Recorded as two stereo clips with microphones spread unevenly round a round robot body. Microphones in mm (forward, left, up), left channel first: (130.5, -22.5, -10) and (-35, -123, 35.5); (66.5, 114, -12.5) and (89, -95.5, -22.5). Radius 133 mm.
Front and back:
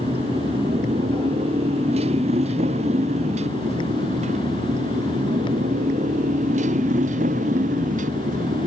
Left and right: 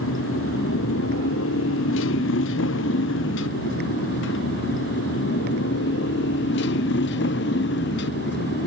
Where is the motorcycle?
140° left; by 8.7 s 150° left.